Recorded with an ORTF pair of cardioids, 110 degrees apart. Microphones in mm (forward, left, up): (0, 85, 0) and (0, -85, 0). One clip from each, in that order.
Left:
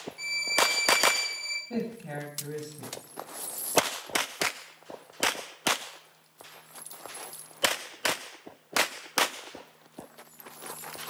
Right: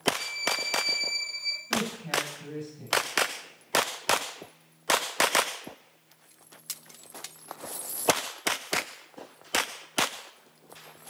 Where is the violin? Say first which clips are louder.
Left 4 dB; 35° left, 3 m.